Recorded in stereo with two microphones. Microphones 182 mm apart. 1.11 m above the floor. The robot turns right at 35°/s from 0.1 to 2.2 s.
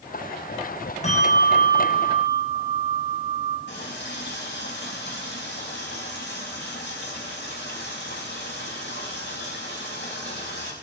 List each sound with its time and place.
1.0 s a bell: 40° left, 8.5 m; by 3.6 s 80° left, 8.5 m
3.7 s a running tap: 80° left, 5 m